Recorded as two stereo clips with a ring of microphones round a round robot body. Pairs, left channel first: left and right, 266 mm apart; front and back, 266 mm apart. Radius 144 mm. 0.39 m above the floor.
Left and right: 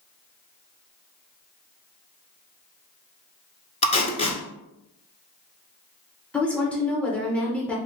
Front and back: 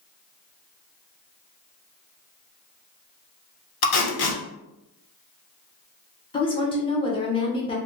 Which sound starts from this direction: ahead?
A woman speaking, at 6.3 s.